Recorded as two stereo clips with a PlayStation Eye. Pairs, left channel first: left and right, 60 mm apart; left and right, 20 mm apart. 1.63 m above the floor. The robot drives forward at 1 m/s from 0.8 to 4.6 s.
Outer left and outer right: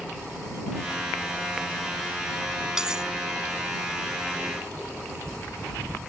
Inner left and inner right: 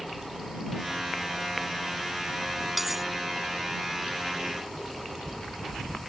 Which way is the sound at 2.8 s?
10° right (ahead or behind).